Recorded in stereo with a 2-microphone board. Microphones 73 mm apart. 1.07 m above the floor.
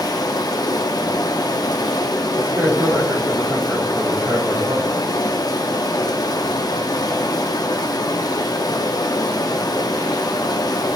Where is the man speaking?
30° right (ahead or behind), 3 m.